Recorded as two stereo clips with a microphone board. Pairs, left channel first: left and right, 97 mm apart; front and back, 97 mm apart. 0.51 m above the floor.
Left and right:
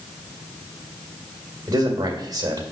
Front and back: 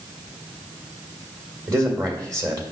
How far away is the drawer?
I don't hear a drawer.